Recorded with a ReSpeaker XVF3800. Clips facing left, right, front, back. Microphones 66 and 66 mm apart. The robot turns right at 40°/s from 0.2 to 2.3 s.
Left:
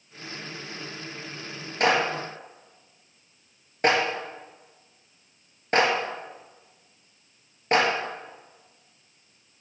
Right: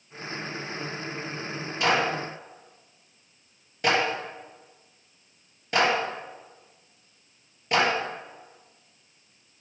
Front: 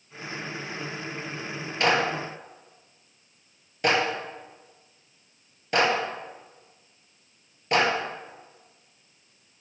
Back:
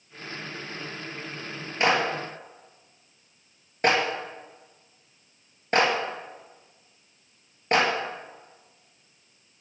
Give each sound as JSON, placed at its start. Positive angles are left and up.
{"t": 1.8, "sound": "a clap", "azimuth_deg": 110, "distance_m": 3.5}